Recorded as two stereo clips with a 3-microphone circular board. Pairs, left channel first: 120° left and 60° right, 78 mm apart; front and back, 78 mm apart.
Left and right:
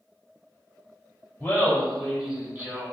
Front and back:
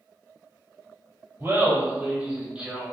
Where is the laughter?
150° left, 1.1 m; by 2.9 s 100° right, 1.2 m.